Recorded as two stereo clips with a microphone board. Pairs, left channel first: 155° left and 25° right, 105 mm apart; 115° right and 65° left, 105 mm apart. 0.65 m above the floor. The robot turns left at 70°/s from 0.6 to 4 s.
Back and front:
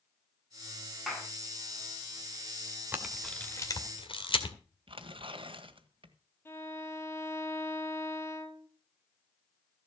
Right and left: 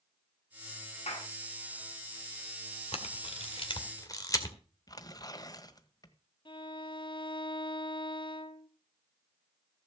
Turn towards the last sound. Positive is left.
turn(degrees=-140)